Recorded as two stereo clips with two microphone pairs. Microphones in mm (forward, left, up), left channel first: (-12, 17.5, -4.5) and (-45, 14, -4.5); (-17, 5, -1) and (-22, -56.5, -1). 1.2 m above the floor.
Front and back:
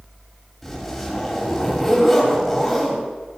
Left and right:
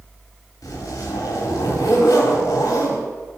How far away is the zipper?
About 4 m.